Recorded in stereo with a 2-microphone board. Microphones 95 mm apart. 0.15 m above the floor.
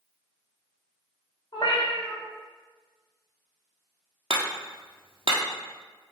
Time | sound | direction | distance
1.5 | a cat meowing | 45° left (ahead or behind) | 2 m
4.3 | hammering | 65° right (ahead or behind) | 1.4 m